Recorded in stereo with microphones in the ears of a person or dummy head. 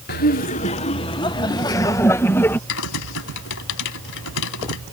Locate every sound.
0.1 s laughter: 55° left (ahead or behind); by 2.6 s 10° left (ahead or behind)
2.7 s typing on a keyboard: 70° left (ahead or behind)